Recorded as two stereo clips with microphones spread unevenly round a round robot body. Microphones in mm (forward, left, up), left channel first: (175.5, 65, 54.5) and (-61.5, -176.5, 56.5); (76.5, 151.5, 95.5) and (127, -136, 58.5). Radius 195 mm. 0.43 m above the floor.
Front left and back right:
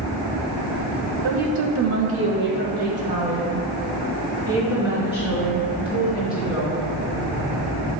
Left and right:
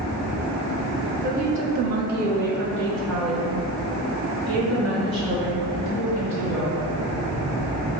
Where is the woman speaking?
130° right, 1.7 m; by 6.8 s 45° right, 7.5 m.